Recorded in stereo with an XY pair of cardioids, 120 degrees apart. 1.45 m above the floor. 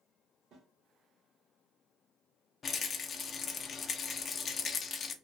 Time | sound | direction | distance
0.5 | a snare drum | 60° right | 1.7 m
2.6 | a rattle | 40° left | 0.6 m